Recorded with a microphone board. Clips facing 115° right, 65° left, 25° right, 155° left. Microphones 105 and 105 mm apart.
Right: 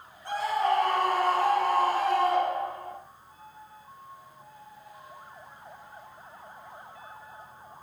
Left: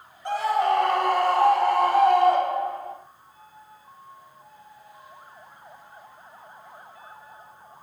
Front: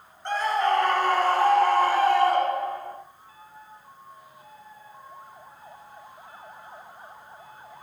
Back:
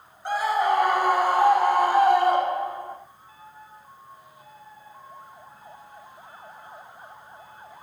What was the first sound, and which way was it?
A scream, 75° left.